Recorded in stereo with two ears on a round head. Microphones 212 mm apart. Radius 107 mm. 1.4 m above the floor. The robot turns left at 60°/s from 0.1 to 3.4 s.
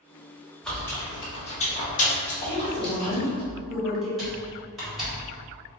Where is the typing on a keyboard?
Centre (ahead or behind), 1.3 m.